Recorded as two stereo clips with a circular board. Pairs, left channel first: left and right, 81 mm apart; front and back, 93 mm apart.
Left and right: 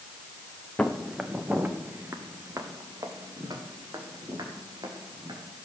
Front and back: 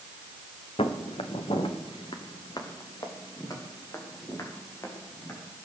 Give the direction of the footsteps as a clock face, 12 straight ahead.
12 o'clock.